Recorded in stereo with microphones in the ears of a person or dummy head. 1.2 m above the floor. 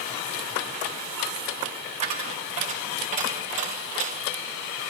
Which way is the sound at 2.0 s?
40° right (ahead or behind).